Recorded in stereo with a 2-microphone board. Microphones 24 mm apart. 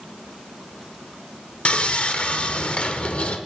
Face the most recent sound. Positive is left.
turn(degrees=50)  # may be behind; listen again after turning